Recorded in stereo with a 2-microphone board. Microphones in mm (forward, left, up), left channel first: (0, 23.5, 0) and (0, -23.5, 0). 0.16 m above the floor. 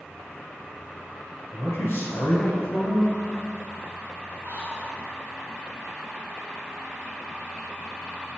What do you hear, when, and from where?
1.5 s a man speaking: 45° left (ahead or behind), 2 m
4.4 s whispering: 55° right (ahead or behind), 2 m